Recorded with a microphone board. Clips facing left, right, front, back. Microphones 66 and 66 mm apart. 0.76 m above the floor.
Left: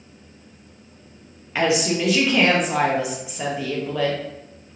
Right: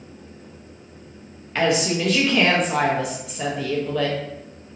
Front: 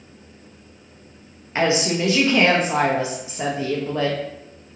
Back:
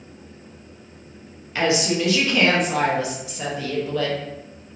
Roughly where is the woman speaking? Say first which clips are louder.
Even, front 1 dB; ahead.